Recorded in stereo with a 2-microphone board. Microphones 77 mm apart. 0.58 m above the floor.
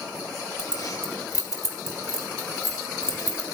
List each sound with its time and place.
0.6 s keys jangling: 50° left (ahead or behind), 1.9 m